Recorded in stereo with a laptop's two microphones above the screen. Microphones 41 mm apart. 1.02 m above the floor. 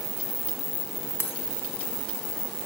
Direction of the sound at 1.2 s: 75° left (ahead or behind).